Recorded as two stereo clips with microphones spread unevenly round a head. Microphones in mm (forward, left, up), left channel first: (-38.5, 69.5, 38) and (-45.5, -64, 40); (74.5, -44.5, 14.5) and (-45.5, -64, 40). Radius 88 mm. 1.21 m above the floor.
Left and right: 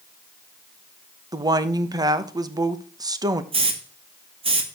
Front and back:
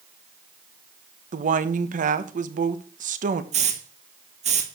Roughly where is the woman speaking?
Behind right.